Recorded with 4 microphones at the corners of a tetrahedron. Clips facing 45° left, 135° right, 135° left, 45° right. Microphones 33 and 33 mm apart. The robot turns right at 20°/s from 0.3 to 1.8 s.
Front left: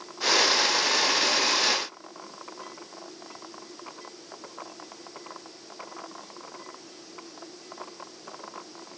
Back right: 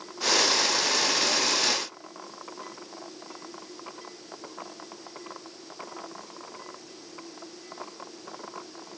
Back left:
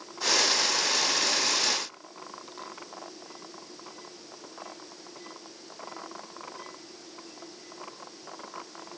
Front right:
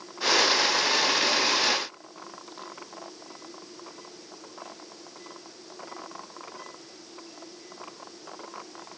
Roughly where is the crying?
No crying in this recording.